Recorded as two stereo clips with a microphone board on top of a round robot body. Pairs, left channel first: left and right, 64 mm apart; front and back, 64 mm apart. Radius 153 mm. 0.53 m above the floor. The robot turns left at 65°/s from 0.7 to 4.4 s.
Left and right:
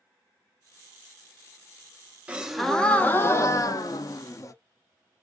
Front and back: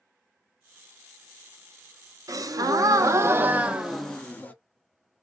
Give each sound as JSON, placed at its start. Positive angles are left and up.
{"t": 2.3, "sound": "a gasp", "azimuth_deg": -160, "distance_m": 0.9}